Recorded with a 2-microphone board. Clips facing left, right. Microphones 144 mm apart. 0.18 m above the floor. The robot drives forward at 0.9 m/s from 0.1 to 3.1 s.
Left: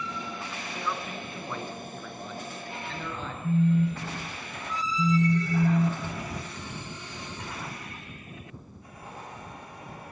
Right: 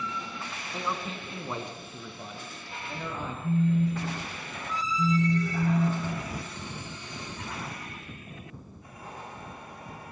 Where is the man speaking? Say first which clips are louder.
Right 1 dB; 25° right (ahead or behind), 2 m; by 3.3 s 15° right (ahead or behind), 4 m.